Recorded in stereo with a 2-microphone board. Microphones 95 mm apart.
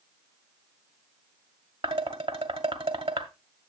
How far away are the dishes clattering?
About 1.2 m.